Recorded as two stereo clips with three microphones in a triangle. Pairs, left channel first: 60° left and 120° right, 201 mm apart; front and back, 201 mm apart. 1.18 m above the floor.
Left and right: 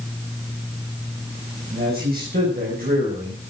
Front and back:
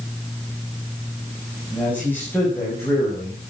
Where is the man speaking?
80° right, 6.5 m; by 3.4 s 75° right, 5 m.